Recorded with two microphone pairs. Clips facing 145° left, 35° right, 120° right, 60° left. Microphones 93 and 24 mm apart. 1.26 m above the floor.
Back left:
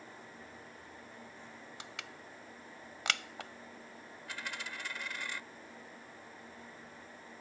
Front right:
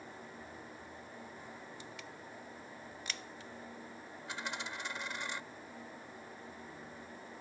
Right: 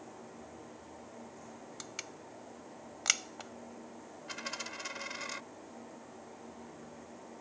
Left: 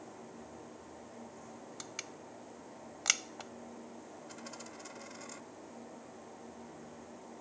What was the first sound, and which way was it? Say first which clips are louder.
Crushing: even, right 1 dB; 155° left.